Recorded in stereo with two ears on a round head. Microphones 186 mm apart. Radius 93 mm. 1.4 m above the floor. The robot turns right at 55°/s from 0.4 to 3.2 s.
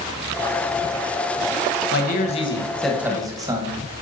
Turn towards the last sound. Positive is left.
turn(degrees=-15)  # may be behind; listen again after turning